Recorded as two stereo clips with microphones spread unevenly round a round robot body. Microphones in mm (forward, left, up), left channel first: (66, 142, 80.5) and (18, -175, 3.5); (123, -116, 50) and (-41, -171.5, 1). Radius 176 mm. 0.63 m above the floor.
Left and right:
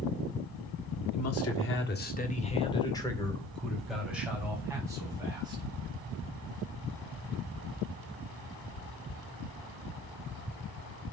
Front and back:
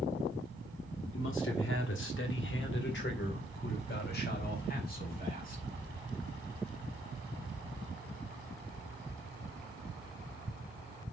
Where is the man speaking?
35° left, 1.6 m; by 5.6 s 25° right, 3.5 m.